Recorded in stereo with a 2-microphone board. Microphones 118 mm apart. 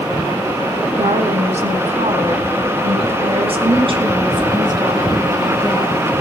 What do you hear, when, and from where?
1.0 s a woman speaking: 60° right (ahead or behind), 2.5 m; by 6.1 s 30° right (ahead or behind), 4 m